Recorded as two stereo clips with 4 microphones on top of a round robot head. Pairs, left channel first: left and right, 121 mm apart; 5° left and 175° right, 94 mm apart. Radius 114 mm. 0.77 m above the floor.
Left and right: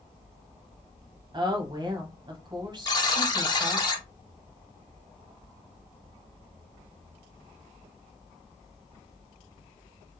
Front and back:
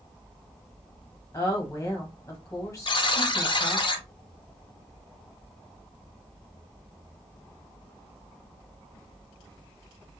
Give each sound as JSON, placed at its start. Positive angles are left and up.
{"t": 1.3, "sound": "a woman speaking", "azimuth_deg": -50, "distance_m": 1.2}
{"t": 2.9, "sound": "a buzzer", "azimuth_deg": 35, "distance_m": 1.3}